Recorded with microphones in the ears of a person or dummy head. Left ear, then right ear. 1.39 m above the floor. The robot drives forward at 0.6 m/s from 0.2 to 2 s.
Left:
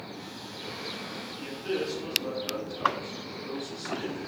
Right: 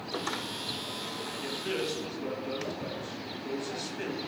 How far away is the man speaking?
About 1.0 m.